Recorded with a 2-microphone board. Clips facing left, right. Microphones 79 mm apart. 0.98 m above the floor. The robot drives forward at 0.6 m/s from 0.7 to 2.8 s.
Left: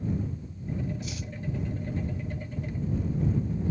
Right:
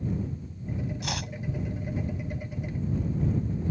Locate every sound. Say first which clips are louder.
1.0 s chopping: right 4 dB; 80° right